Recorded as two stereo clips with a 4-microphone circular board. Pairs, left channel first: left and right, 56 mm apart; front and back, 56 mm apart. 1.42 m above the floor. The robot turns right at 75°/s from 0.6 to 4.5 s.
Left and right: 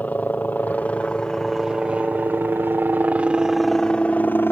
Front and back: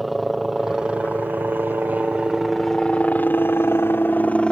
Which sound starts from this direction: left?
A helicopter, at 0.0 s.